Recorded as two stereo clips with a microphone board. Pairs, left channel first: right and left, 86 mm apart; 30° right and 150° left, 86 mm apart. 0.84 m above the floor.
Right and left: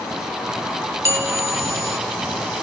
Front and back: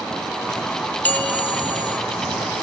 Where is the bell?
40° left, 0.8 m.